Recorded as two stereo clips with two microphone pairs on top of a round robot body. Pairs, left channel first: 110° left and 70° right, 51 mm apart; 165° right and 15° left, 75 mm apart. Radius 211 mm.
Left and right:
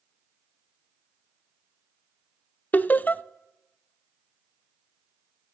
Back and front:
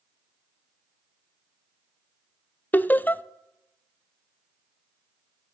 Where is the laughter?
135° left, 0.6 m.